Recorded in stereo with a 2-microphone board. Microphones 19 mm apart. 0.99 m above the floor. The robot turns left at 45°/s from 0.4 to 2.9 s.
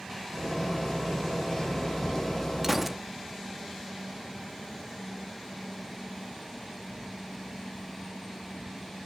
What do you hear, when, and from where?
2.6 s a gunshot: 20° right (ahead or behind), 1.4 m; by 3.0 s 5° right (ahead or behind), 1.4 m